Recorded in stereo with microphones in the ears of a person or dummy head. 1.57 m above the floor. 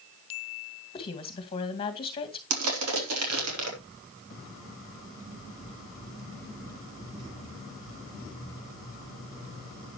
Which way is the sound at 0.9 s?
30° left (ahead or behind).